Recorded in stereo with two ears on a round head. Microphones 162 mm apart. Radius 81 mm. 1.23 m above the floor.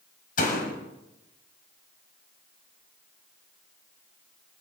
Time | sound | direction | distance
0.4 | a door slam | 50° left (ahead or behind) | 5.5 m